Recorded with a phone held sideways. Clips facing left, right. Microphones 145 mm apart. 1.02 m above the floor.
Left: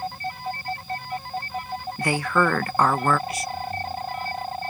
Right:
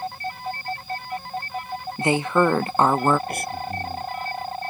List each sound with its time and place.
2.0 s a woman speaking: 20° right (ahead or behind)
3.3 s breathing: 60° right (ahead or behind)